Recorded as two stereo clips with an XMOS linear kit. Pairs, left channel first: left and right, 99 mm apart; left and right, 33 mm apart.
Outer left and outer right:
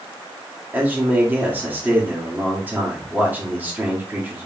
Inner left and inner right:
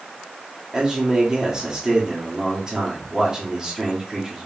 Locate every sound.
0.7 s a man speaking: 20° right (ahead or behind), 1.5 m